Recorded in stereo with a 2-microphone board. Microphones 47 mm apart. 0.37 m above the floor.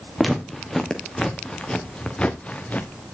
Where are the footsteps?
Centre (ahead or behind), 2.5 m; by 2.9 s 30° left (ahead or behind), 2.5 m.